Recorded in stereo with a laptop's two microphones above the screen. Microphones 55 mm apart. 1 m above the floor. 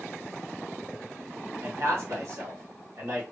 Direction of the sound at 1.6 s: 65° right (ahead or behind).